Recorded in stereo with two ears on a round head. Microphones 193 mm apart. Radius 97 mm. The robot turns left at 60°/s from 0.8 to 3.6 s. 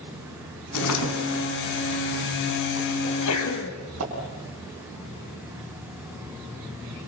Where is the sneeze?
90° left, 4 m; by 3.8 s 60° left, 4 m.